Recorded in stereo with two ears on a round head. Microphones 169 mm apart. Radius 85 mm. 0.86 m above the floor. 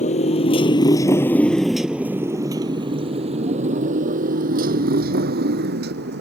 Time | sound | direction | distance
0.0 | a motorcycle | 40° left (ahead or behind) | ?